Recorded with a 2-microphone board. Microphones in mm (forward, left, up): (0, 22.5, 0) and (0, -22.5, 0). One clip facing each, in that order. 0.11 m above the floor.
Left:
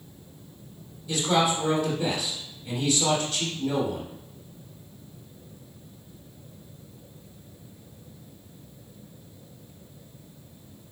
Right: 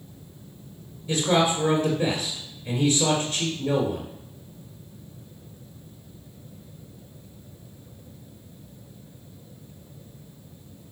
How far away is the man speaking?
About 1.8 m.